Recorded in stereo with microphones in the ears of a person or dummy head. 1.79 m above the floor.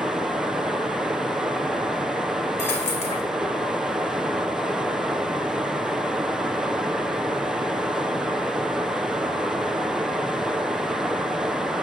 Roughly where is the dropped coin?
Centre.